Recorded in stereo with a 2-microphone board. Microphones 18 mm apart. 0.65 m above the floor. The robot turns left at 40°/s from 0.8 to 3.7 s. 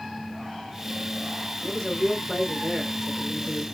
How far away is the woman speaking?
About 2.5 m.